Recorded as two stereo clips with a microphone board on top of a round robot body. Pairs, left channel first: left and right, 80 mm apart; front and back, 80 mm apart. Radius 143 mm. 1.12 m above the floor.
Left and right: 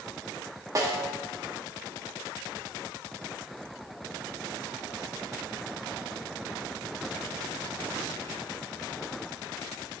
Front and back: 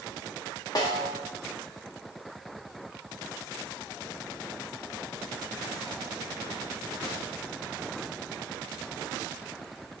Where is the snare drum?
40° right, 1.7 m.